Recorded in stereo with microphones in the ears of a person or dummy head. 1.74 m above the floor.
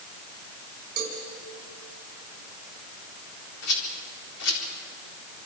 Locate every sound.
1.0 s a cowbell: 45° right (ahead or behind), 4 m
3.6 s a rattle: 80° left, 4 m